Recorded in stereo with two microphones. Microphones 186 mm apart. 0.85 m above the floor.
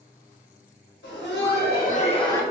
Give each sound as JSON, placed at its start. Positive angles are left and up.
{"t": 1.0, "sound": "laughter", "side_deg": 75, "distance_m": 1.2}